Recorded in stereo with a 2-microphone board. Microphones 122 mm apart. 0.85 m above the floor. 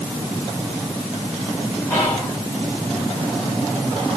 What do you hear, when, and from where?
1.9 s whispering: 20° left (ahead or behind), 1.4 m